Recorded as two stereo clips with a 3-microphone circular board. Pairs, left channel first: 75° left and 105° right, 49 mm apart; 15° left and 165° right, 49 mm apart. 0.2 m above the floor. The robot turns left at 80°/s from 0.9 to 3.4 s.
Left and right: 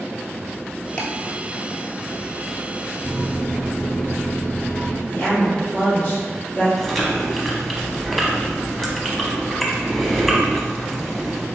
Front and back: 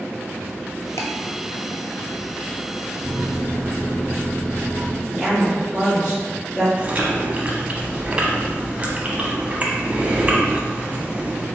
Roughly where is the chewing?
Behind.